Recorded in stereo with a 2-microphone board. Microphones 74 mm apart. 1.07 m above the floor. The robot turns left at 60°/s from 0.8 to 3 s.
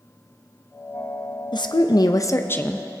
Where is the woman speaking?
90° left, 0.6 m; by 2.9 s 10° left, 0.6 m.